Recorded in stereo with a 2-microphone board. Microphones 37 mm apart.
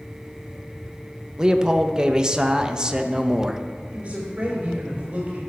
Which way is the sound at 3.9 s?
35° right (ahead or behind).